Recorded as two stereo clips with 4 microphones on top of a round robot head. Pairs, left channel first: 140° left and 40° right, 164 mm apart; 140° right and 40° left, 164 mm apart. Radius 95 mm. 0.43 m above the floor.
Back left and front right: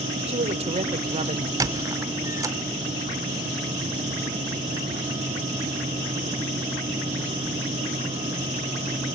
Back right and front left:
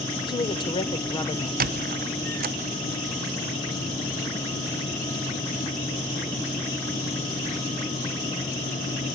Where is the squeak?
30° left, 0.8 m.